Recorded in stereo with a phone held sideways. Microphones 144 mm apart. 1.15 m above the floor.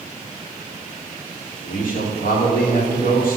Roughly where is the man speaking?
Left.